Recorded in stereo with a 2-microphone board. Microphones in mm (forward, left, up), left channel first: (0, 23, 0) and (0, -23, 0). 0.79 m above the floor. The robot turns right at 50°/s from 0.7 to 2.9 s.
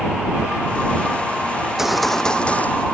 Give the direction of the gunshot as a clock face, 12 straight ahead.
1 o'clock.